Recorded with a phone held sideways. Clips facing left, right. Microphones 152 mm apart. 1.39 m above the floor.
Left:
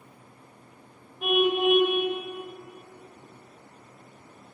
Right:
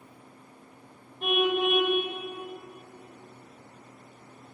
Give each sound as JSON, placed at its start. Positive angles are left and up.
{"t": 1.2, "sound": "a car horn", "side_deg": 5, "distance_m": 3.0}